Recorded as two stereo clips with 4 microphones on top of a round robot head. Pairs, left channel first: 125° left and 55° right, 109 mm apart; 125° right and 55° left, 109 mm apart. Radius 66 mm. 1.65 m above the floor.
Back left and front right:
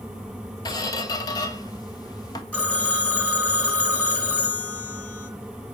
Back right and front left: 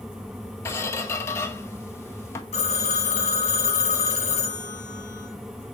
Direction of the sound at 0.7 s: 175° left.